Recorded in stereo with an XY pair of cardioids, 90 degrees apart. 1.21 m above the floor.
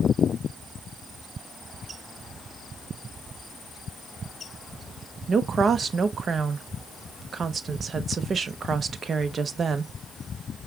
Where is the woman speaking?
55° right, 0.8 m.